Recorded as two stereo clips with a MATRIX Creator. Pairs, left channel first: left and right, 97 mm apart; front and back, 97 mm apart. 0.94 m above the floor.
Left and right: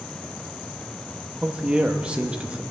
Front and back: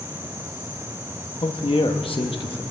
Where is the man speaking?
10° right, 1.1 m.